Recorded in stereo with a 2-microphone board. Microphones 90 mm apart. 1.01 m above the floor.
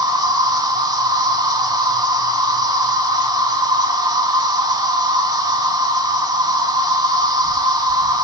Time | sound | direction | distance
0.0 | an insect | 50° right (ahead or behind) | 2.5 m